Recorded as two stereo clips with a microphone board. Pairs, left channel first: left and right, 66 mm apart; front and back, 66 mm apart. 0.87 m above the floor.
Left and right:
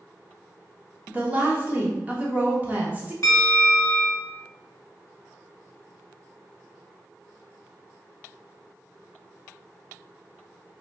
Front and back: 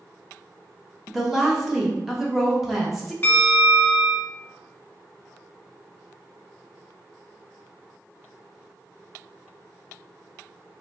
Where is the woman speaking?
100° right, 0.9 m.